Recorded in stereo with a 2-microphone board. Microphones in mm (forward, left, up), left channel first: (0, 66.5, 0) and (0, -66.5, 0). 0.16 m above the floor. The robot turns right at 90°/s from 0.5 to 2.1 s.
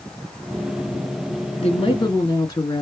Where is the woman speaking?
95° left, 2 m; by 2.8 s 140° left, 2 m.